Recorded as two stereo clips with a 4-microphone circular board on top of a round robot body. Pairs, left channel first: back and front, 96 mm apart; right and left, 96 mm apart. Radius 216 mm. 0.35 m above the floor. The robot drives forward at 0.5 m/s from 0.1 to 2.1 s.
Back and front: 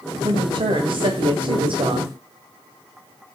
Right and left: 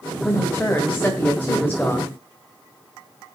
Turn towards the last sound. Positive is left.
turn(degrees=-20)